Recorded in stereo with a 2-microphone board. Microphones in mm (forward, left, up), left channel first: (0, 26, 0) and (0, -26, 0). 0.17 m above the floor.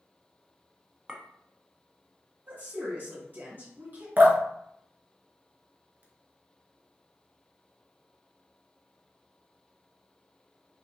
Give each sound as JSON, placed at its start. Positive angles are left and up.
{"t": 1.1, "sound": "a clink", "side_deg": -15, "distance_m": 0.6}
{"t": 2.5, "sound": "a woman speaking", "side_deg": -40, "distance_m": 1.8}
{"t": 4.2, "sound": "dripping", "side_deg": -35, "distance_m": 1.0}